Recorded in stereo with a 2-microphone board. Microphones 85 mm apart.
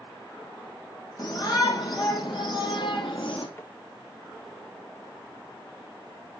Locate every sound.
1.2 s a shout: 45° left (ahead or behind), 5 m; by 3.5 s 65° left (ahead or behind), 3 m
3.6 s tapping: 25° left (ahead or behind), 2 m